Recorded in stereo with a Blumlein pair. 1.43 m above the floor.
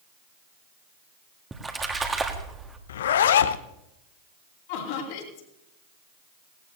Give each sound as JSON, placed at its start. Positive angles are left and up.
{"t": 1.5, "sound": "a splash", "azimuth_deg": -15, "distance_m": 1.6}
{"t": 2.9, "sound": "a zipper", "azimuth_deg": 60, "distance_m": 0.6}
{"t": 4.7, "sound": "laughter", "azimuth_deg": 50, "distance_m": 2.5}